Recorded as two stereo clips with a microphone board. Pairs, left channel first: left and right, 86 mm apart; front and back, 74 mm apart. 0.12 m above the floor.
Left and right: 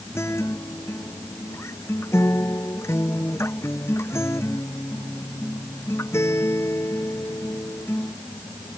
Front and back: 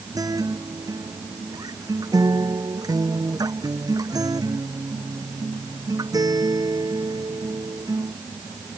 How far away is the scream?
I don't hear a scream.